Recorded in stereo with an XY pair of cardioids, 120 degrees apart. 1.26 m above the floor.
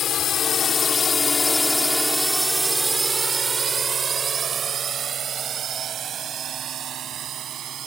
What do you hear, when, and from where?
0.0 s a drone: 55° left; by 7.9 s 55° right